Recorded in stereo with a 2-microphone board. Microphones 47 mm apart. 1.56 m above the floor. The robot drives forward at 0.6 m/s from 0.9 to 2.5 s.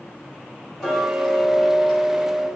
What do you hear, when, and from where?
0.8 s ticking: 10° left (ahead or behind), 1.6 m; by 2.5 s 5° left (ahead or behind), 2.5 m